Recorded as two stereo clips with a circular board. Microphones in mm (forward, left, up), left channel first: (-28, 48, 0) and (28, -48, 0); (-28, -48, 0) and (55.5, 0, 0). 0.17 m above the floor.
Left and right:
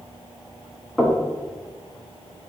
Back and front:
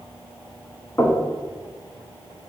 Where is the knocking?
145° right, 0.8 m.